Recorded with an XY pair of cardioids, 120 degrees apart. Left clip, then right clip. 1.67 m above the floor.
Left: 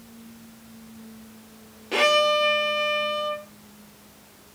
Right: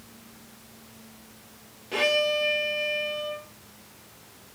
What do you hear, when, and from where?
1.9 s a violin: 40° left, 0.6 m